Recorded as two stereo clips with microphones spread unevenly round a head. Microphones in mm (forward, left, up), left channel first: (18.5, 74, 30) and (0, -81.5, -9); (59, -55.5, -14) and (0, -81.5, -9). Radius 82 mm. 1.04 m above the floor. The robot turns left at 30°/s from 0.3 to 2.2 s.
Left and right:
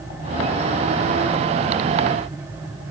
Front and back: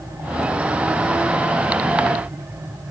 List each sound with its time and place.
Only background noise.